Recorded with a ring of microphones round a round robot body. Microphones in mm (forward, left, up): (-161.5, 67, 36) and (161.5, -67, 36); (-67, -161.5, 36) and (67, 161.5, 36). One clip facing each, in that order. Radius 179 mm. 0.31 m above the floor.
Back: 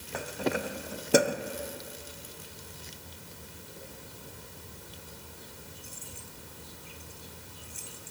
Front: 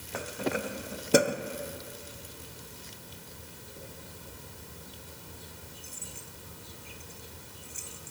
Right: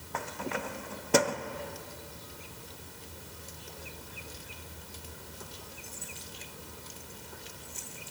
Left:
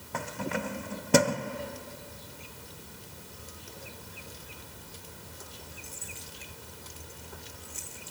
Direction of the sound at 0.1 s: 65° left.